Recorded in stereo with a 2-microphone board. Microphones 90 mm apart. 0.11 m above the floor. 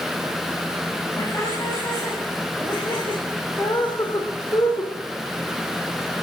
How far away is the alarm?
No alarm in this recording.